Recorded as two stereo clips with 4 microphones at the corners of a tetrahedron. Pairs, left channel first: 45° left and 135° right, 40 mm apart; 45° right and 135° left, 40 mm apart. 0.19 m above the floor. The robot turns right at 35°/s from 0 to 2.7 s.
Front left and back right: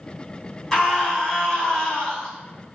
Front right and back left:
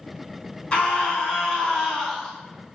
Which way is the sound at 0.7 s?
25° right.